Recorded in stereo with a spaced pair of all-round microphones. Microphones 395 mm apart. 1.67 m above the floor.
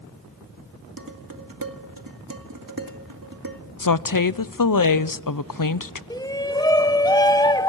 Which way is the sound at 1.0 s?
60° right (ahead or behind).